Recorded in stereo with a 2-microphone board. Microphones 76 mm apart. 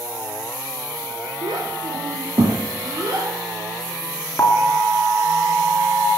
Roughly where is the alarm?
Left.